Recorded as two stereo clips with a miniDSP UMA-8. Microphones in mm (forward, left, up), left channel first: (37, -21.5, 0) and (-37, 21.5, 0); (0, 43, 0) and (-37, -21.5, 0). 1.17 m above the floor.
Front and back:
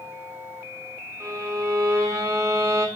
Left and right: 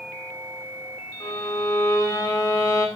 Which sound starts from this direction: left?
A violin, at 1.2 s.